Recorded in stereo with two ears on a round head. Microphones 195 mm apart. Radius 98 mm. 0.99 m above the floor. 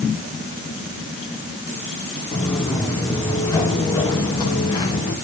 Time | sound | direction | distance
2.3 | footsteps | 10° left (ahead or behind) | 7.5 m